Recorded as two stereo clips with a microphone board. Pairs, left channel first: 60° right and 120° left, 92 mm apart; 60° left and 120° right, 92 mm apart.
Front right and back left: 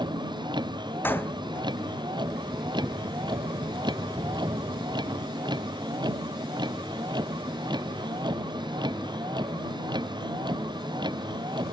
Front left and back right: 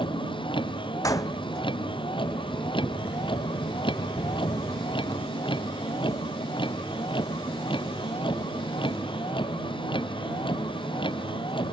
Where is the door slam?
5° left.